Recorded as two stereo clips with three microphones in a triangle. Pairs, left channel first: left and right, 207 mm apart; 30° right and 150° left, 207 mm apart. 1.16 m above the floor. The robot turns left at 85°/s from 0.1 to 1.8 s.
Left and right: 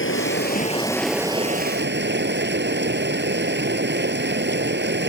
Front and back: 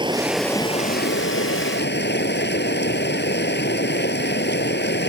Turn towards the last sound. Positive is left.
turn(degrees=-60)